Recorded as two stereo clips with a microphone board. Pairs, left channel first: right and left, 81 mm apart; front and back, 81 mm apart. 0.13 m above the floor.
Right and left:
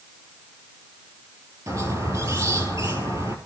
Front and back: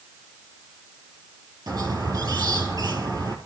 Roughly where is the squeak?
Behind left.